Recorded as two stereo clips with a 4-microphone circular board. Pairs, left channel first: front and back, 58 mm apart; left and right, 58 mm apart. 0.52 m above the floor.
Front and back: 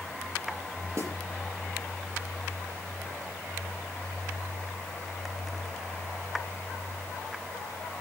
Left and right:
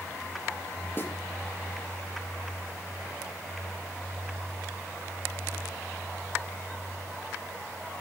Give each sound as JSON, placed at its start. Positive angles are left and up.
{"t": 1.0, "sound": "a snare drum", "azimuth_deg": 140, "distance_m": 4.0}